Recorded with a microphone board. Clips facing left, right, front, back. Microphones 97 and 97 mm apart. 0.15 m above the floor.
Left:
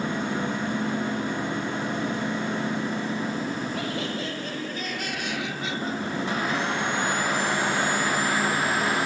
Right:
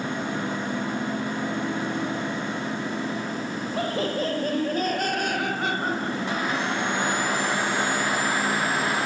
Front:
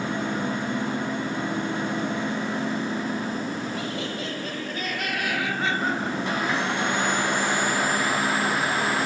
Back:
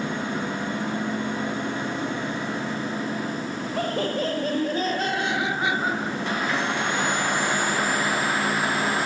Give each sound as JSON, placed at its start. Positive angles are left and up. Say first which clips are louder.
{"t": 3.8, "sound": "laughter", "louder": "right 4 dB, back 5 dB", "azimuth_deg": -140}